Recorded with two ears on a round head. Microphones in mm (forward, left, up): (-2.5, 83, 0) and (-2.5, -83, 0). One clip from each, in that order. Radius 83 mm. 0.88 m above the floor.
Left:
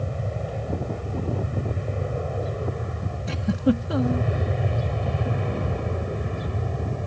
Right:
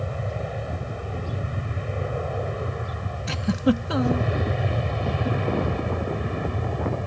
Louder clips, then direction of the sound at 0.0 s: Right 1 dB; 40° right (ahead or behind).